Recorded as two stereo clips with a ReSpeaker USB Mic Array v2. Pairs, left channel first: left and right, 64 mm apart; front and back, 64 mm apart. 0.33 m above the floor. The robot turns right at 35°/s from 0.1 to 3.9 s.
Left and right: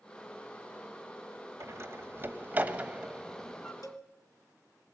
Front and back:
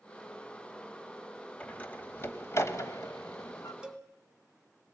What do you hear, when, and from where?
1.6 s a door slam: 70° right, 1.0 m; by 3.7 s 5° left, 1.0 m
3.8 s a cowbell: 105° left, 1.0 m